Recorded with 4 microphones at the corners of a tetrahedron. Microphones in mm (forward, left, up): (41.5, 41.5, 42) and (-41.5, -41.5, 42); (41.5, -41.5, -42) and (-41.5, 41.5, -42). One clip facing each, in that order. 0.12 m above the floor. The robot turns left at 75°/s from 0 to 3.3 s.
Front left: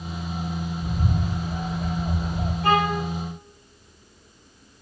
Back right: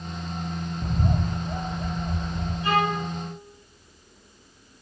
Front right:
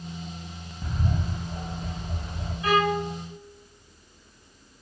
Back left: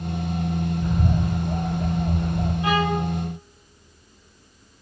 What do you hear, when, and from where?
0.8 s a bird: 150° right, 4.5 m; by 2.5 s 85° left, 4.5 m
2.6 s a violin: 70° left, 8 m; by 3.0 s 40° left, 8 m